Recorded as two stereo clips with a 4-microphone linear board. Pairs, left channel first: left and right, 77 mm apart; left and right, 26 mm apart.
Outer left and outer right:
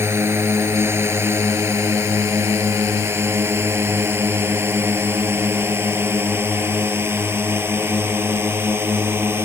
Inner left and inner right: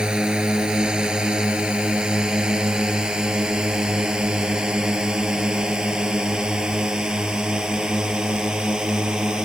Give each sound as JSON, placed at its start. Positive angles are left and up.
{"t": 0.0, "sound": "a drone", "side_deg": -35}